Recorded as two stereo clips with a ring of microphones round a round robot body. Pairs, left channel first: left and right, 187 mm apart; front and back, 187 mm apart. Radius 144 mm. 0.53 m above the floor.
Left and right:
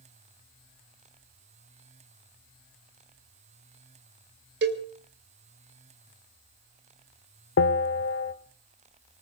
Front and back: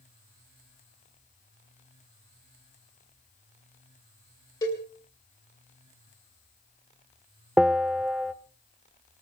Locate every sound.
4.6 s a cowbell: 75° right, 2.5 m
7.6 s a bell: 95° left, 1.1 m